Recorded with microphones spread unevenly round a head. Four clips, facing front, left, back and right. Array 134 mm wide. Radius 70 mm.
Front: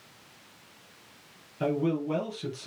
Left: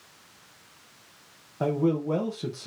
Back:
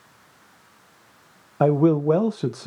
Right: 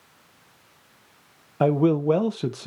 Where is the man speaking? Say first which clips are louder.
Right 5 dB, back 10 dB; 150° right, 0.6 m.